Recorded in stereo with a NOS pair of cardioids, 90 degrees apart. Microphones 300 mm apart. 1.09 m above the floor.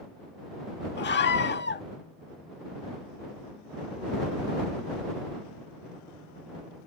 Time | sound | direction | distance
1.0 | a scream | 35° left | ?